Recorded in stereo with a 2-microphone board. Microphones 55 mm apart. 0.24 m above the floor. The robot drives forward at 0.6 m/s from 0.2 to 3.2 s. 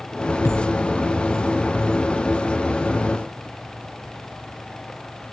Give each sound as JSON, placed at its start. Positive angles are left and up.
{"t": 0.5, "sound": "a thud", "side_deg": 70, "distance_m": 1.8}